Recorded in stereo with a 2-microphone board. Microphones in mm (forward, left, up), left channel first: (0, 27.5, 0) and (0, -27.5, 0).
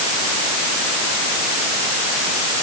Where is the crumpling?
I don't hear crumpling.